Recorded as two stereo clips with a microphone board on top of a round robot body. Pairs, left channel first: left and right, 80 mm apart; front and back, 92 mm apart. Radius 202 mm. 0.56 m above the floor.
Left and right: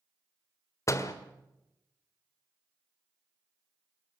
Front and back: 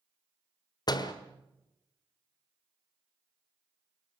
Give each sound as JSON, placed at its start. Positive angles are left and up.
{"t": 0.9, "sound": "a door slam", "azimuth_deg": 40, "distance_m": 1.7}